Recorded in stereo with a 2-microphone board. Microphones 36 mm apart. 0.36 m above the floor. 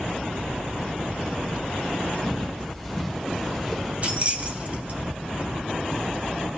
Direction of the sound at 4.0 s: 40° right (ahead or behind).